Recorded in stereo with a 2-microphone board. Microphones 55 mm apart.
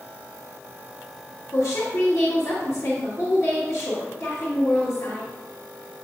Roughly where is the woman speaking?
Left.